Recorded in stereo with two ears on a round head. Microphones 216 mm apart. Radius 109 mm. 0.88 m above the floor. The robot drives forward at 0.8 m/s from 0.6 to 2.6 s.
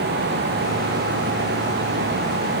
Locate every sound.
Only background noise.